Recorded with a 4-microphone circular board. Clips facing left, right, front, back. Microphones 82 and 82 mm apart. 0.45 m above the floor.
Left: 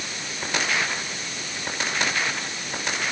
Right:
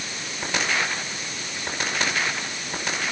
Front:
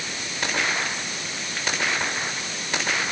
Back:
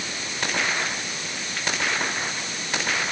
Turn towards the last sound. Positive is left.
No sound to turn to.